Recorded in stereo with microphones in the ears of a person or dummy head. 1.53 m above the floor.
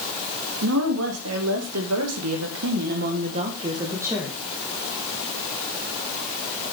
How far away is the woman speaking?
About 3 m.